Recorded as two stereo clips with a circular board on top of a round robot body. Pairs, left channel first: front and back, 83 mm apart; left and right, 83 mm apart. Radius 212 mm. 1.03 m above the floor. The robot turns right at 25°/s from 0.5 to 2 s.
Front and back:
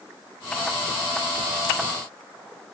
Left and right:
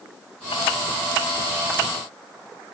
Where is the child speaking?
I don't hear a child speaking.